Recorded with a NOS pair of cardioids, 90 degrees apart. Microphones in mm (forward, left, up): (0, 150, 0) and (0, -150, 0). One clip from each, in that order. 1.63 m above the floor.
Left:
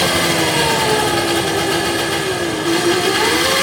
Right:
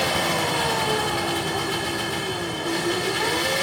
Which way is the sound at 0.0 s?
65° left.